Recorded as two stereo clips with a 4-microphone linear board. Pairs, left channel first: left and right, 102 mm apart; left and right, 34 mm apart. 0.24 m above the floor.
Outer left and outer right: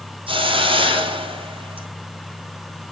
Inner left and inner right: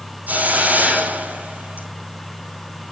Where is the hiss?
55° right (ahead or behind), 3 m.